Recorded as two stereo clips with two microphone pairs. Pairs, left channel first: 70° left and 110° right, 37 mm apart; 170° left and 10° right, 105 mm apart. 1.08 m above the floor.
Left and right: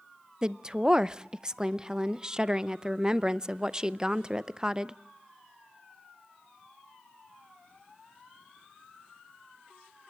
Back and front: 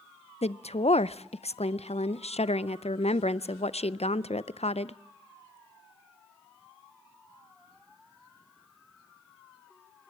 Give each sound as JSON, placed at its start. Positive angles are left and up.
{"t": 0.4, "sound": "a woman speaking", "azimuth_deg": 180, "distance_m": 0.5}